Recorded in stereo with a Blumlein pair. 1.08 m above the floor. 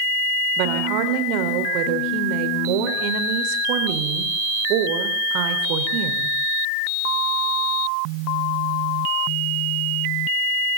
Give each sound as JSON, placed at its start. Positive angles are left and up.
{"t": 0.6, "sound": "a woman speaking", "azimuth_deg": -45, "distance_m": 4.0}